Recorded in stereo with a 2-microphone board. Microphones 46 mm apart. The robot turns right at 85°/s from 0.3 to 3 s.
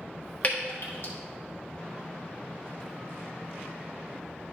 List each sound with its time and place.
0.4 s dripping: 35° left (ahead or behind), 1.4 m; by 1.1 s 65° left (ahead or behind), 1.4 m